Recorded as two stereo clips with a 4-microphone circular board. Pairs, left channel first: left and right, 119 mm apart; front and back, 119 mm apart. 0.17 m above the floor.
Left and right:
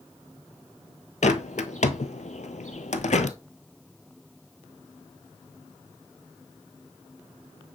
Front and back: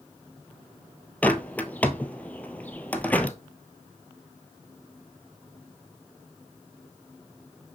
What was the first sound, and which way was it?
A bird, 75° left.